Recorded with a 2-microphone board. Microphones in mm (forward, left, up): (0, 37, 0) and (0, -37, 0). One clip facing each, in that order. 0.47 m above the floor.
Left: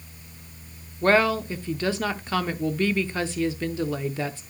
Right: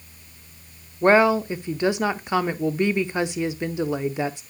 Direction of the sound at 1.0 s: 20° right (ahead or behind).